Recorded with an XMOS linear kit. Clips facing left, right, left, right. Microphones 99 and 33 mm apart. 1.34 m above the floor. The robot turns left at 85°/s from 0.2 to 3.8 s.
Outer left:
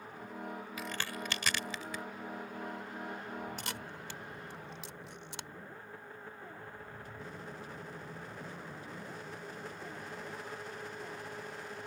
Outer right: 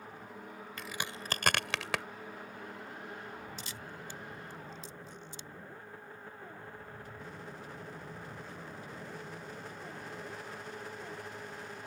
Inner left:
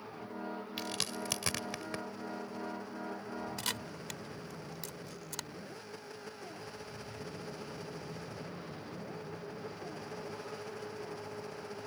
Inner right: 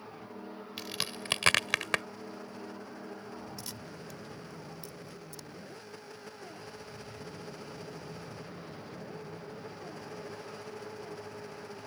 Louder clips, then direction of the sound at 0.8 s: Even, inner right 2 dB; 5° left (ahead or behind).